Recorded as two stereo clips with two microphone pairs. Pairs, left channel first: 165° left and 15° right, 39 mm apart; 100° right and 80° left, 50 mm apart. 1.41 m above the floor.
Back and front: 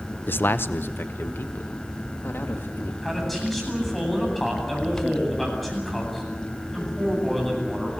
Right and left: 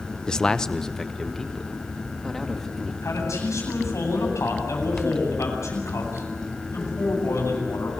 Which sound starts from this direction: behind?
A man speaking, at 0.3 s.